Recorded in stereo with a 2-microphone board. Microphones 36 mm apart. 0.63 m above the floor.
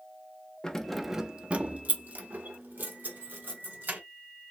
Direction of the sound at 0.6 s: 20° left (ahead or behind).